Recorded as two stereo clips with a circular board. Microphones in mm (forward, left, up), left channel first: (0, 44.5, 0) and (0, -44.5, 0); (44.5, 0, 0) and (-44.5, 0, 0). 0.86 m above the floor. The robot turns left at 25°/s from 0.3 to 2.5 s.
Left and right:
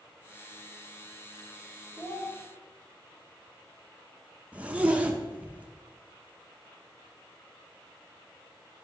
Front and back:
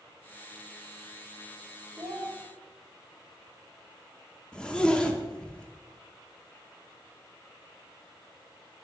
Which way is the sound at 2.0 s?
155° left.